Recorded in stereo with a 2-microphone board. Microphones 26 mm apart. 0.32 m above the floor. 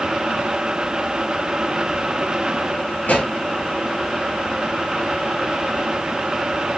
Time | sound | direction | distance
3.0 | a pop | 85° left | 2 m